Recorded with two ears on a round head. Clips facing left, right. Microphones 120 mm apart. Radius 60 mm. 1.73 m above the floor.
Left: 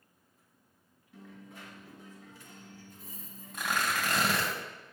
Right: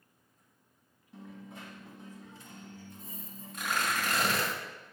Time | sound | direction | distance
1.1 | a dropped coin | 20° right (ahead or behind) | 1.1 m
3.5 | tearing paper | 60° left (ahead or behind) | 2 m